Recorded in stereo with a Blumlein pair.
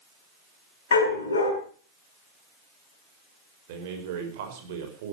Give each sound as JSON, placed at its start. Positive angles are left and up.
{"t": 0.9, "sound": "a dog barking", "azimuth_deg": 70, "distance_m": 6.0}
{"t": 3.7, "sound": "a man speaking", "azimuth_deg": -50, "distance_m": 6.0}